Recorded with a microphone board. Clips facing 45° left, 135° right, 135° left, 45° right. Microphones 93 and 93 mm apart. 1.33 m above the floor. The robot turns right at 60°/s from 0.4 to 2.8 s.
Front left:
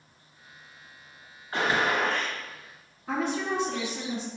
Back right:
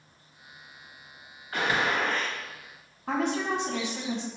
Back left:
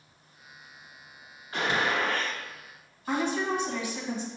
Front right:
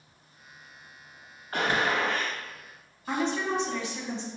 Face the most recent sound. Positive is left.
turn(degrees=-145)